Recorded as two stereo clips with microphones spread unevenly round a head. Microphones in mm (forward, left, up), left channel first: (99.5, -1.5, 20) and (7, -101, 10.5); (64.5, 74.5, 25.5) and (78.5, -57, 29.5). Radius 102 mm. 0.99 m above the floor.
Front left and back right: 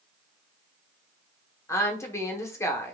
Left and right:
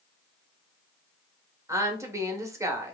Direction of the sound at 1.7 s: 20° right.